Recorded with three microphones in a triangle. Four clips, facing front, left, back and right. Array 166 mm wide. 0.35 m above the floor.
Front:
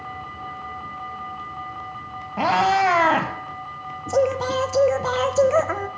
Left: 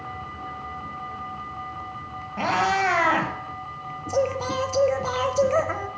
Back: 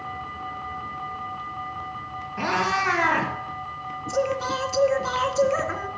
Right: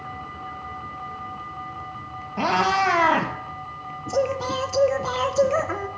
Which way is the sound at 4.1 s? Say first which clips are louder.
Right 1 dB, front 5 dB; 5° right.